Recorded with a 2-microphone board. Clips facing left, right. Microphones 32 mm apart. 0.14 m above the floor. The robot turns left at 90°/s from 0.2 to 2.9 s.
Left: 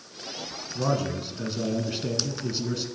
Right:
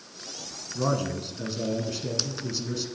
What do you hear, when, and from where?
0.8 s a man speaking: 15° right (ahead or behind), 1.6 m; by 2.9 s 10° left (ahead or behind), 1.6 m